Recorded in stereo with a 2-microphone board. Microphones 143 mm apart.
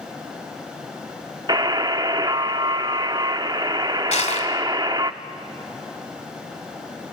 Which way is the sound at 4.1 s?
55° left (ahead or behind).